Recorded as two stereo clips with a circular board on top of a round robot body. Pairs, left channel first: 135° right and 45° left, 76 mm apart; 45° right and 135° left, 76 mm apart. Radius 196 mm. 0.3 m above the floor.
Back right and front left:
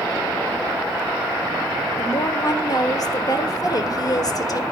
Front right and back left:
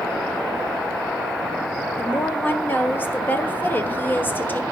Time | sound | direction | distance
2.0 | a woman speaking | 105° right | 1.9 m